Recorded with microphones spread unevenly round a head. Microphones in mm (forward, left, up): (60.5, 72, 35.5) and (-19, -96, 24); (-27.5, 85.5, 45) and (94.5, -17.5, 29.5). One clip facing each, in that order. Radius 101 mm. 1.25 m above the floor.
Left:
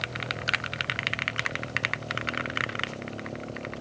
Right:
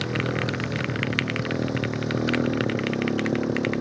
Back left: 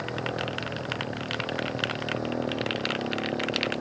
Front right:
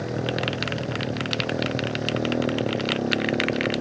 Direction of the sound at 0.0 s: 110° right.